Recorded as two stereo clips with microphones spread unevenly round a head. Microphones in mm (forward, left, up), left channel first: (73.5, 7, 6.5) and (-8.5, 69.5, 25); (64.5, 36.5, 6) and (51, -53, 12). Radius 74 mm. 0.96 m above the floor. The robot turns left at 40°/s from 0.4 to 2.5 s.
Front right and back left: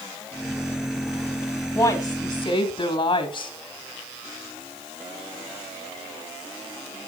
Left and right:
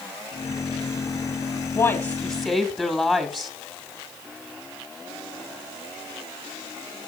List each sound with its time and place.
1.8 s a woman speaking: 30° left, 2.5 m; by 3.5 s straight ahead, 2.5 m